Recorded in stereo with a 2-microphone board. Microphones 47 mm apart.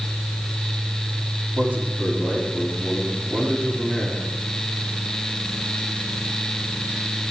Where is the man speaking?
35° right (ahead or behind), 6.5 m.